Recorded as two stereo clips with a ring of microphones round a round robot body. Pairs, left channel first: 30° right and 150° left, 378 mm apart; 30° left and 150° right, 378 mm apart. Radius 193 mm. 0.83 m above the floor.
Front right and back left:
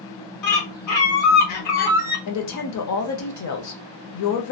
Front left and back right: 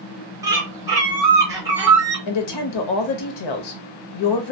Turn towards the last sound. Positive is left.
turn(degrees=15)